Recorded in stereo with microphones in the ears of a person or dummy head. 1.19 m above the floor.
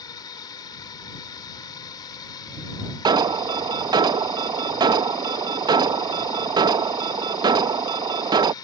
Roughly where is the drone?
Left.